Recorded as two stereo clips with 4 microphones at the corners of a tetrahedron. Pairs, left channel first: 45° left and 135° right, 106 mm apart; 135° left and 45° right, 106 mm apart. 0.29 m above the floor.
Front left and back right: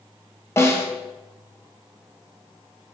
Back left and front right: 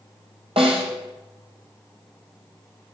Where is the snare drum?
20° right, 2.5 m.